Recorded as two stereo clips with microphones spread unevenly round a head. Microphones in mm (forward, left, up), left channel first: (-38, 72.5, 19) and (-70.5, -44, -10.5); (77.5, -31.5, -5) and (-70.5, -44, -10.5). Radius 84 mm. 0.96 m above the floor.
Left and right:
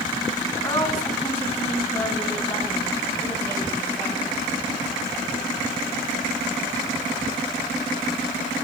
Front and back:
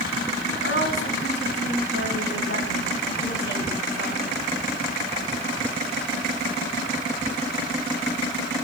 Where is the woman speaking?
5° left, 8.5 m; by 4.4 s 5° right, 9 m.